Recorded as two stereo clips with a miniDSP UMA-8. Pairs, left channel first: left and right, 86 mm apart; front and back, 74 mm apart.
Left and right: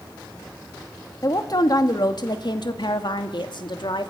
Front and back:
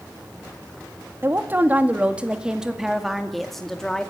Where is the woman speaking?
125° left, 1.8 m; by 4.1 s 80° left, 2 m.